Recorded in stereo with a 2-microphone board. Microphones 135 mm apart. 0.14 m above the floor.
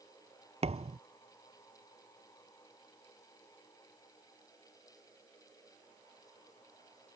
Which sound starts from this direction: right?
A thud, at 0.6 s.